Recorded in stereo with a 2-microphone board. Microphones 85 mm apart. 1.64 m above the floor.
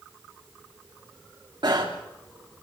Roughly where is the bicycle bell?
Right.